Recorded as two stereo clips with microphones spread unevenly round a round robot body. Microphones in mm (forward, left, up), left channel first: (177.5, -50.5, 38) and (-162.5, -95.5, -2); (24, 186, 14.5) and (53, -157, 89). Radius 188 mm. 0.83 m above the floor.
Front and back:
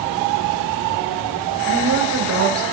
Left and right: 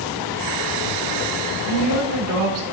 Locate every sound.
1.7 s a woman speaking: 125° right, 2.5 m